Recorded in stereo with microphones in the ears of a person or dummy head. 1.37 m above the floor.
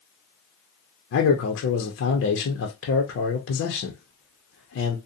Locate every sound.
1.1 s a man speaking: 70° left (ahead or behind), 0.6 m